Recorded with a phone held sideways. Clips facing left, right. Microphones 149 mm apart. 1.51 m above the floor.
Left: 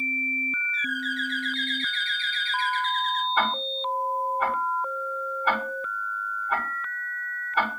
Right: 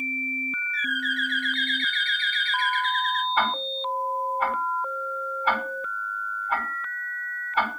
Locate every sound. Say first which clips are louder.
0.7 s a bird: right 1 dB; 60° right (ahead or behind), 0.7 m
3.4 s ticking: even; centre (ahead or behind), 6.5 m